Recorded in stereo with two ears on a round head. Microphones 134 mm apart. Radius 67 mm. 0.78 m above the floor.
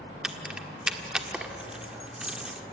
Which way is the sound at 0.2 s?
5° right (ahead or behind).